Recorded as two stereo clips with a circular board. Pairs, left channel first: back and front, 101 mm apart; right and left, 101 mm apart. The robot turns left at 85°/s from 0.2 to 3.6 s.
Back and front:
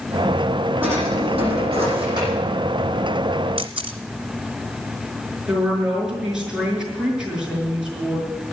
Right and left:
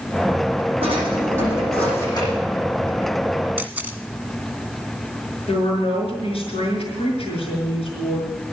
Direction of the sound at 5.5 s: 80° right.